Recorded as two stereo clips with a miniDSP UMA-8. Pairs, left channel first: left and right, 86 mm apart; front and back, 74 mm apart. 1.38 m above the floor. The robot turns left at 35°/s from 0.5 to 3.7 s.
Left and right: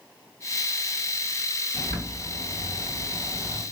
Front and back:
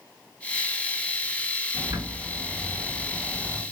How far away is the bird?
About 1.9 m.